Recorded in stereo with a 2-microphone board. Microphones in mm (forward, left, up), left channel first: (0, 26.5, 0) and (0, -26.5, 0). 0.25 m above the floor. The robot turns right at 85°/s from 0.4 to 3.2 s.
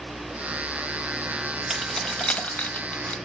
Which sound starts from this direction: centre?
Keys jangling, at 1.7 s.